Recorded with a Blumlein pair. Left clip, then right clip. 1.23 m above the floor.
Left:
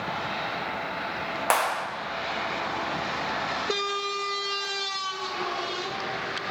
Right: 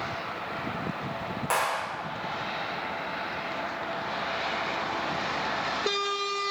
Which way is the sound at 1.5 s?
60° left.